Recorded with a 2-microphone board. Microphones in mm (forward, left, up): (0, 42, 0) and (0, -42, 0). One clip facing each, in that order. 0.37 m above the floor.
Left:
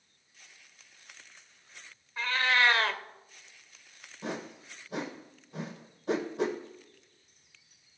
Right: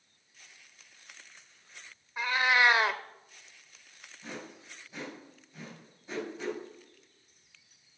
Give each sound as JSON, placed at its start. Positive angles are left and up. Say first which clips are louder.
{"t": 2.2, "sound": "a cat meowing", "louder": "right 1 dB", "side_deg": -15, "distance_m": 0.7}
{"t": 4.2, "sound": "a whoosh", "louder": "left 6 dB", "side_deg": 70, "distance_m": 2.5}